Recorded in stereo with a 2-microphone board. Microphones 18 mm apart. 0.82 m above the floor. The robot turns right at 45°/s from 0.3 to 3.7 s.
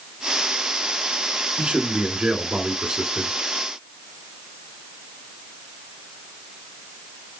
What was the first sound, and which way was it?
A man speaking, 110° right.